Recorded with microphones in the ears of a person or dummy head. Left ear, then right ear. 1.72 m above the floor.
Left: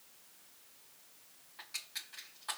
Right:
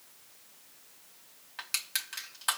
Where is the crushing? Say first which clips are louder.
Right 9 dB; 55° right (ahead or behind), 2.5 m.